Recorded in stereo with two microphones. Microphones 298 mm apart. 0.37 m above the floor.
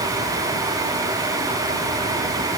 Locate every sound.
Only background noise.